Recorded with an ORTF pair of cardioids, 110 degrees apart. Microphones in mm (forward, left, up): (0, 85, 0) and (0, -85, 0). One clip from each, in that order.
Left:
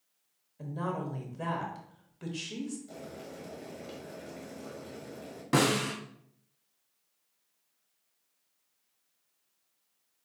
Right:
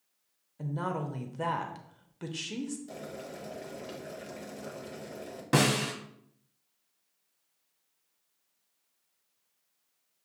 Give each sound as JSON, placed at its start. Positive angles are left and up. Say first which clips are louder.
{"t": 0.6, "sound": "a woman speaking", "louder": "right 1 dB", "azimuth_deg": -25, "distance_m": 0.8}
{"t": 2.9, "sound": "boiling", "louder": "right 3 dB", "azimuth_deg": -35, "distance_m": 1.0}
{"t": 5.5, "sound": "a snare drum", "louder": "even", "azimuth_deg": -15, "distance_m": 0.9}